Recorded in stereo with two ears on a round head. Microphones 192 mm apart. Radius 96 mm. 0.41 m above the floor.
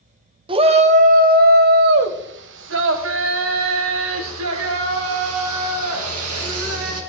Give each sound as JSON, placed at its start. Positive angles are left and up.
{"t": 0.5, "sound": "a shout", "side_deg": -25, "distance_m": 1.1}